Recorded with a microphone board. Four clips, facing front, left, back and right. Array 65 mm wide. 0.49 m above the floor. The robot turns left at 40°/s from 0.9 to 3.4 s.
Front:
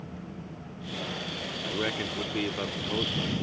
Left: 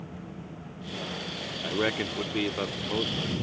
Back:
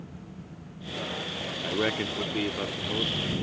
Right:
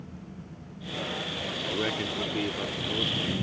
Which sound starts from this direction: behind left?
A man speaking, at 1.6 s.